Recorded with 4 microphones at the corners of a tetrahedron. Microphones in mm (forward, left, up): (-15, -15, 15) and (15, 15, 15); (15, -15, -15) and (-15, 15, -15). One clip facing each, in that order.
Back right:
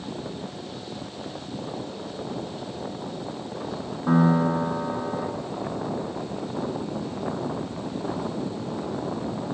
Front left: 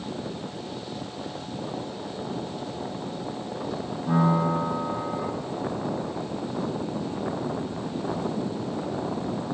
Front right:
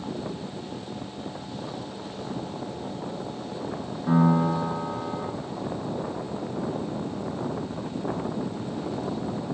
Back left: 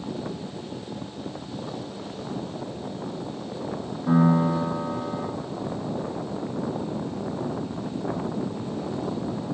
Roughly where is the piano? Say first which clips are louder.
Back right 3 dB, back left 1 dB; behind right.